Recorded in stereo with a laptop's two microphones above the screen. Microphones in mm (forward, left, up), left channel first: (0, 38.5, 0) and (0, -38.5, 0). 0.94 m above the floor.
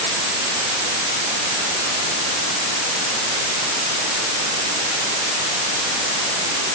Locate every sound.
Only background noise.